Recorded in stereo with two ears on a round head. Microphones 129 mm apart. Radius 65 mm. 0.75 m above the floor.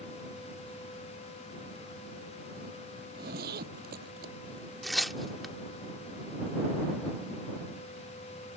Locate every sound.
3.0 s a zipper: 75° right (ahead or behind)
4.8 s tearing paper: centre (ahead or behind)